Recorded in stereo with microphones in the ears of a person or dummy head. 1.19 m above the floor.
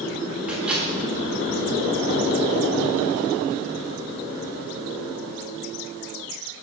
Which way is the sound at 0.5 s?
5° right (ahead or behind).